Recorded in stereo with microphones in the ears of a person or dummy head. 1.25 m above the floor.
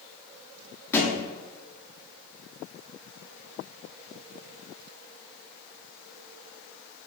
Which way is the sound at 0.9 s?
15° left (ahead or behind).